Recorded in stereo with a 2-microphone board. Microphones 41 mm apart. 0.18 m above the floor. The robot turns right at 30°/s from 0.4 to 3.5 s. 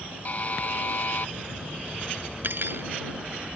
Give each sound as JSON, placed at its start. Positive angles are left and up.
{"t": 0.2, "sound": "a buzzer", "side_deg": 40}
{"t": 2.4, "sound": "cutlery clinking", "side_deg": -55}